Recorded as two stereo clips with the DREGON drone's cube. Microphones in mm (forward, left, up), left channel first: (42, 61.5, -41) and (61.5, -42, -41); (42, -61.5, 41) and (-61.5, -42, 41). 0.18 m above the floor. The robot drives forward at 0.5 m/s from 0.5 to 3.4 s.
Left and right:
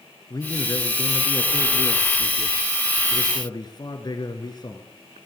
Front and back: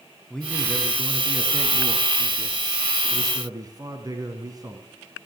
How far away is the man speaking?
About 1.8 m.